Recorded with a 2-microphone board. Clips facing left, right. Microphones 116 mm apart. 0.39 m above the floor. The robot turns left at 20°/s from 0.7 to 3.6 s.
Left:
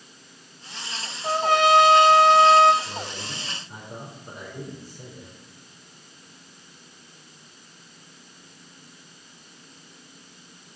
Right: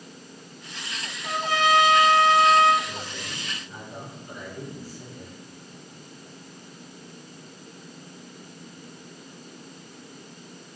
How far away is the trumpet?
About 1.1 m.